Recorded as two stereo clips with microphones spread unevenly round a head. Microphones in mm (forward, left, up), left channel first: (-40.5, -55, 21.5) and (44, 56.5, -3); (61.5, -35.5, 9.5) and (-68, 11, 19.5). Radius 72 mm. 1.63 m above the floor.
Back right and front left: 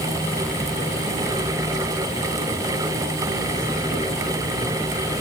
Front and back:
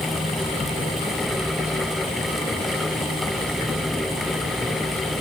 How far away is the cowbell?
No cowbell in this recording.